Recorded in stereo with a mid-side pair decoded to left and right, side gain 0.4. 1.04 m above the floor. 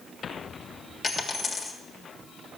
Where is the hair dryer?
No hair dryer in this recording.